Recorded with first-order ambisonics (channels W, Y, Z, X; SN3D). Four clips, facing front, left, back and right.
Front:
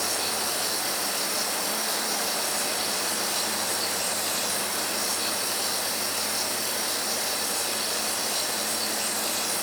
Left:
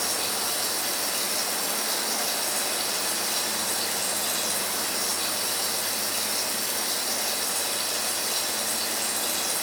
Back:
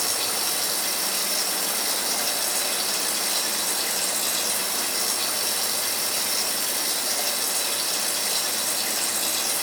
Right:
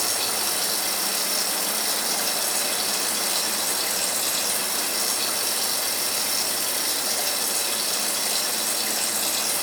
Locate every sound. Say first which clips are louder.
0.0 s running water: right 2 dB, back 1 dB; 125° right, 2.5 m